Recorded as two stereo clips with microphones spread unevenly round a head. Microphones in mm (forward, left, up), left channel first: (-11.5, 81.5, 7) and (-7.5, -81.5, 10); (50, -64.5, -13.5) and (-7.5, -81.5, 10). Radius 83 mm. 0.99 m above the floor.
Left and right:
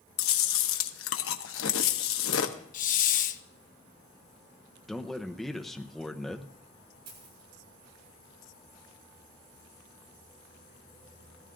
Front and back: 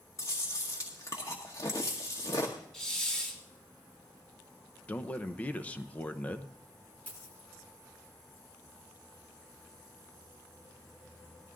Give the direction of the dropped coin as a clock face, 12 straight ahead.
2 o'clock.